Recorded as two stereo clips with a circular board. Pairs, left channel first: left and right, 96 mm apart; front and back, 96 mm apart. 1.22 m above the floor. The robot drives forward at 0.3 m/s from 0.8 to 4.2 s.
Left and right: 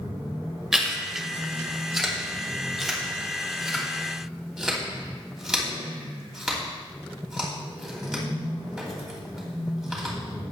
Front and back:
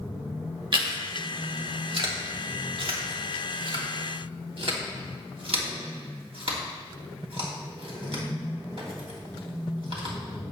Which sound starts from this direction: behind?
Chewing, at 0.7 s.